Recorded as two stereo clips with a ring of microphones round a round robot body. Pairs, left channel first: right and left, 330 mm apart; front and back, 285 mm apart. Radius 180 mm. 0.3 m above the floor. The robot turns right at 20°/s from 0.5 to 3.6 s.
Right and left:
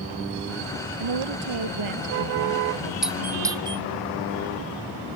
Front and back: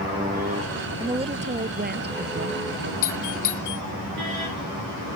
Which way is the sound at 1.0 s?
105° left.